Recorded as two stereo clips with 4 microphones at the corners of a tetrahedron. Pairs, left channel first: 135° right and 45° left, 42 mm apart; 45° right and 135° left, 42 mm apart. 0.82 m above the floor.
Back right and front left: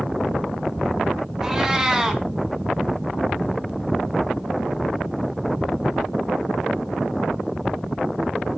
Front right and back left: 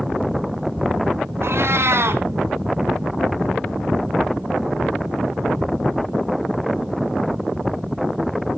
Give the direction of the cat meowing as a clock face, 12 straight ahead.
8 o'clock.